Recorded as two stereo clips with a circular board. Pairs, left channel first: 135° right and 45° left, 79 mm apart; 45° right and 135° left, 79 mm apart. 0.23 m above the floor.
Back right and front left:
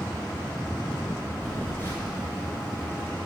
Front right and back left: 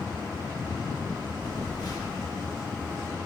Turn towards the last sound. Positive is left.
turn(degrees=-80)